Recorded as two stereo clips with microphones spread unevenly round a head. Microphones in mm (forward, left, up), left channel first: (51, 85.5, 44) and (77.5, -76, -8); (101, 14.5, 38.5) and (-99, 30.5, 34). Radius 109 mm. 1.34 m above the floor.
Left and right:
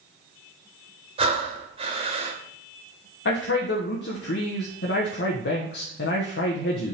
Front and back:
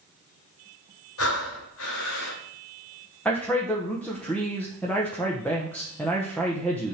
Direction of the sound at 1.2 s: 20° right.